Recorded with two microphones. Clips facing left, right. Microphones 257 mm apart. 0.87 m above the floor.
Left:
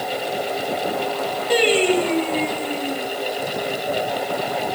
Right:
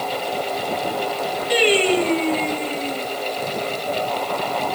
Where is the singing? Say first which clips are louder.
Left 1 dB; 50° left (ahead or behind), 4 m.